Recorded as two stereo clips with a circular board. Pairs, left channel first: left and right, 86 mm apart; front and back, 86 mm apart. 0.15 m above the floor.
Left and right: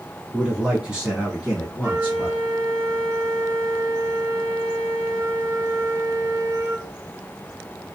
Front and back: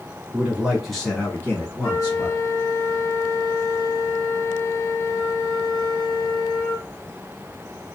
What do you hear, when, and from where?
0.3 s a man speaking: 155° right, 1.3 m; by 2.4 s 15° right, 1.8 m
1.8 s a flute: 40° right, 1.2 m